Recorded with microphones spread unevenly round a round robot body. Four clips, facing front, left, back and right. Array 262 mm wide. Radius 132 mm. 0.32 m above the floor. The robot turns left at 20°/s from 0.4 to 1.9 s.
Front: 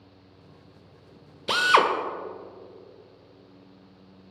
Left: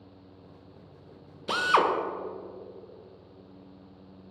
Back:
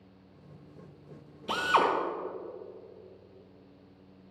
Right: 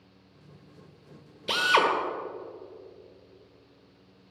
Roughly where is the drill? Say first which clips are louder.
Even, front 5 dB; ahead.